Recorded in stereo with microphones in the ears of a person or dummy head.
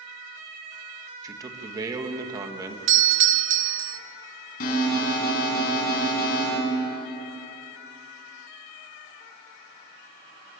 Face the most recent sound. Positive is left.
turn(degrees=50)  # may be behind; listen again after turning